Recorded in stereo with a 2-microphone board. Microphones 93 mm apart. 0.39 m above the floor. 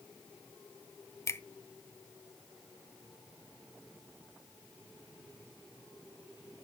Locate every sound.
1.3 s a finger snap: 30° left (ahead or behind), 0.6 m